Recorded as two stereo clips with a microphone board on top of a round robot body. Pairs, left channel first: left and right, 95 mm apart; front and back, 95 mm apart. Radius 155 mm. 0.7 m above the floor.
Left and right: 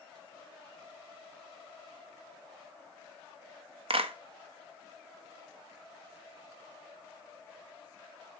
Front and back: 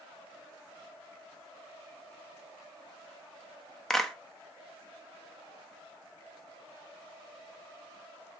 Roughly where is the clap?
Right.